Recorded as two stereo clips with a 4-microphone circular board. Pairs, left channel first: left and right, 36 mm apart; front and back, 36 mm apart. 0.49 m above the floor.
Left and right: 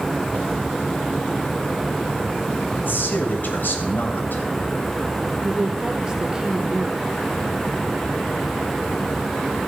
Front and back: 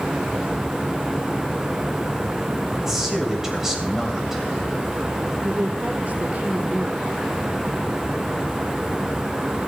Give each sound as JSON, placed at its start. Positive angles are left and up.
{"t": 2.8, "sound": "a man speaking", "azimuth_deg": 105, "distance_m": 3.0}
{"t": 5.4, "sound": "a woman speaking", "azimuth_deg": -155, "distance_m": 1.2}